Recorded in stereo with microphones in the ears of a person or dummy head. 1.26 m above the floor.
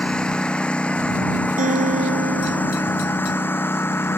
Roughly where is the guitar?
Right.